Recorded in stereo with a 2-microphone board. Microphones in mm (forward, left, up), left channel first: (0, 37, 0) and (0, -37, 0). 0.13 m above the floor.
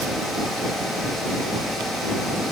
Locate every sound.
Only background noise.